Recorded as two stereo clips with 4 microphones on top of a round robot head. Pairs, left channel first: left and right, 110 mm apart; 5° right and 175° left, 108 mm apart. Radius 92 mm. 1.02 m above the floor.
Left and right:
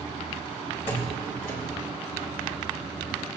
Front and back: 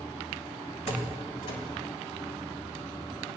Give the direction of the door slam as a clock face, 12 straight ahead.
11 o'clock.